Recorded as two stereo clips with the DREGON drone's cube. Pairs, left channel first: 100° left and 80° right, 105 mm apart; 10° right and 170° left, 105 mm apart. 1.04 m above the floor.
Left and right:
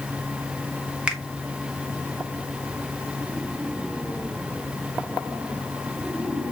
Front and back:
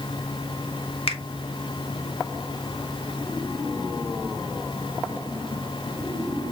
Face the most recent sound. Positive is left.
turn(degrees=0)